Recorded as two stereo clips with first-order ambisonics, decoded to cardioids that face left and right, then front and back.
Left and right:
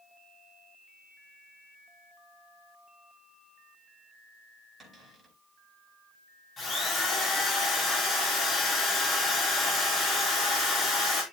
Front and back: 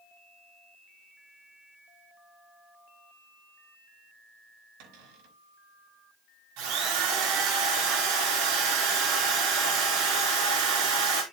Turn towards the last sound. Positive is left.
turn(degrees=160)